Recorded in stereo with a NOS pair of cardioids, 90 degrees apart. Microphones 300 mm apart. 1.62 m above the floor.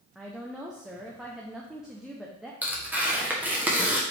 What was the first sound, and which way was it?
A woman speaking, straight ahead.